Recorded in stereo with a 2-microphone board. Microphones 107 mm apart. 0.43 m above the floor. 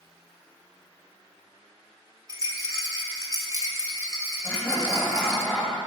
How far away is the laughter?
About 2 m.